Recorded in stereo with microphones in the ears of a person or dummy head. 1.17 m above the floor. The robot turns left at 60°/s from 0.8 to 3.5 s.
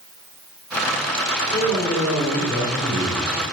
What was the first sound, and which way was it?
A man speaking, 20° left.